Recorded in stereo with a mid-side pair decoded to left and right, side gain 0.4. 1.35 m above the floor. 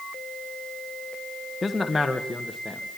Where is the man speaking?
30° left, 1.3 m; by 3.0 s straight ahead, 2.5 m.